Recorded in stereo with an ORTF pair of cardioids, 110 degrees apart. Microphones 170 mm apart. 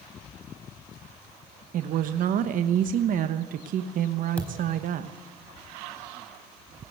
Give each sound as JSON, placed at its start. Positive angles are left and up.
{"t": 1.7, "sound": "a woman speaking", "azimuth_deg": -60, "distance_m": 1.2}
{"t": 4.4, "sound": "a thud", "azimuth_deg": 5, "distance_m": 4.0}